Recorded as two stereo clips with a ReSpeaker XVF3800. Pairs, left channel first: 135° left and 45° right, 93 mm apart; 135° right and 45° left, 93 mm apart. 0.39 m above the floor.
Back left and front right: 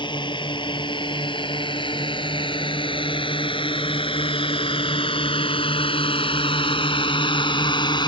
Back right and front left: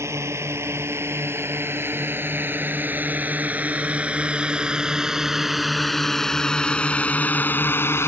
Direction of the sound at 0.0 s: 105° left.